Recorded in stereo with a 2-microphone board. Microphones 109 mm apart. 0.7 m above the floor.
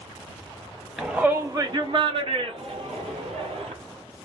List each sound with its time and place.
1.0 s a shout: 5° right (ahead or behind), 0.9 m; by 3.7 s 75° right (ahead or behind), 2.5 m